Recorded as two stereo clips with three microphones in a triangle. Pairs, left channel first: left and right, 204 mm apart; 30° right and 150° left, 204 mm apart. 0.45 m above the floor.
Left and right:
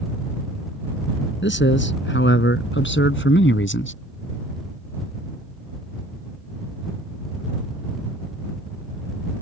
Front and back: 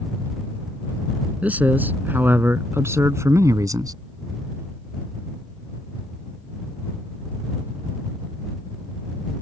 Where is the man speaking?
65° left; by 3.9 s 80° left.